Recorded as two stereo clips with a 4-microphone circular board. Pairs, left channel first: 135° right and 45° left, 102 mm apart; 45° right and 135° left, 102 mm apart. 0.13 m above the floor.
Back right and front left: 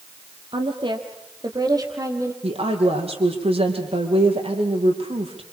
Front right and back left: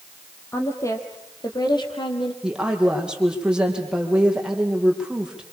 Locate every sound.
0.5 s a woman speaking: 15° left, 4.5 m; by 2.3 s 15° right, 4.5 m
2.4 s a woman speaking: 50° left, 5 m